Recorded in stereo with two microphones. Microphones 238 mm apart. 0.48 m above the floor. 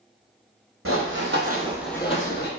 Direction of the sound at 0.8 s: 65° right (ahead or behind).